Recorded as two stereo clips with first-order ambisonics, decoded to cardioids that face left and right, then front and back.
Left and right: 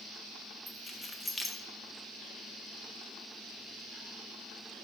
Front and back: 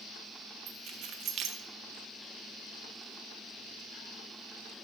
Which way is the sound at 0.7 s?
165° left.